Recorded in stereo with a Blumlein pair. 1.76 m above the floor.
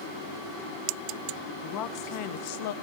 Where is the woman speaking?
35° left, 1.8 m; by 2.7 s 55° left, 1.5 m.